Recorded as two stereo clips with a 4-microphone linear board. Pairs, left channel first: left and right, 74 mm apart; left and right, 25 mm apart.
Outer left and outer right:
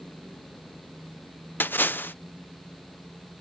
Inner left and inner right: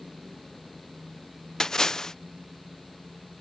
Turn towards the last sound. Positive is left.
turn(degrees=25)  # may be behind; listen again after turning